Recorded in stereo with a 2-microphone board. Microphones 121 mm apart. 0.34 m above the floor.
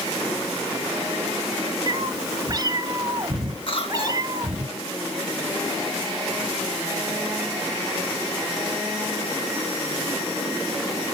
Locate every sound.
1.9 s a cat meowing: 35° right (ahead or behind), 0.8 m
3.7 s a cough: 55° left (ahead or behind), 3 m